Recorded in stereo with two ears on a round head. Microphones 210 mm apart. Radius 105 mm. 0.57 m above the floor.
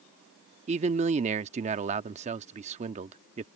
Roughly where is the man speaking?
Right.